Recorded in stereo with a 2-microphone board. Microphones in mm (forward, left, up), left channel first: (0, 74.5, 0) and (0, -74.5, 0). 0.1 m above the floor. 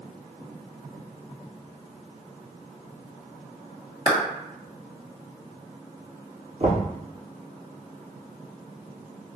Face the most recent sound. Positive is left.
turn(degrees=-55)  # may be behind; listen again after turning